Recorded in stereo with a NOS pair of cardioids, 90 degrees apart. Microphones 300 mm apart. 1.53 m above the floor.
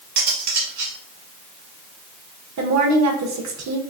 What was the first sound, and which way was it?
Cutlery clinking, 65° right.